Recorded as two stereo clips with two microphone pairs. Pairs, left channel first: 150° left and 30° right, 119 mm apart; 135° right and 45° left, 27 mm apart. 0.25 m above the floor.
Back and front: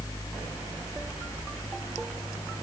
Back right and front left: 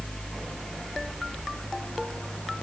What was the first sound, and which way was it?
Only background noise.